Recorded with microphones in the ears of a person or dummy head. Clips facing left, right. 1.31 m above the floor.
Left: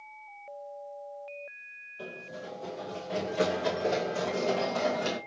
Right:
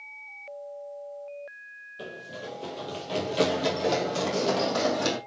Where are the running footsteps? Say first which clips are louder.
Right 2 dB; 30° right (ahead or behind), 1.9 m; by 5.2 s 60° right (ahead or behind), 2.5 m.